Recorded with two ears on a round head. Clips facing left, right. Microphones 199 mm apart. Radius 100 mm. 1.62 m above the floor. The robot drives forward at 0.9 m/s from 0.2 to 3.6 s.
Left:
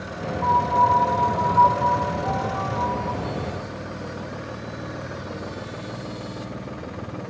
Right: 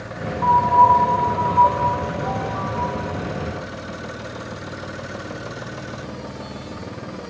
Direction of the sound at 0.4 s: 45° right (ahead or behind).